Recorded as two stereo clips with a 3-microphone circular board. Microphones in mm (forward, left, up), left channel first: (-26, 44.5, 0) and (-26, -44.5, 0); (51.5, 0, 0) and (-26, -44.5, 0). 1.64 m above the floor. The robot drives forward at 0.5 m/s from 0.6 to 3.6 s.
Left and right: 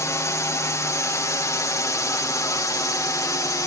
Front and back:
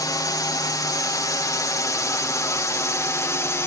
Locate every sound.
0.0 s a drone: 50° left; by 3.7 s 70° left